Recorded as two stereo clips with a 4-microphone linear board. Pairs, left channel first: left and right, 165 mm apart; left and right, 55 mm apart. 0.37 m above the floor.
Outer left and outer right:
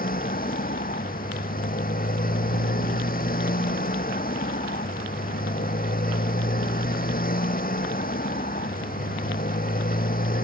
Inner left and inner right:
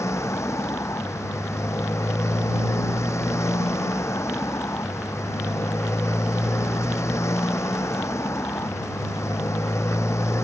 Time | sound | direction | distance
0.0 | a motorcycle | 60° left (ahead or behind) | ?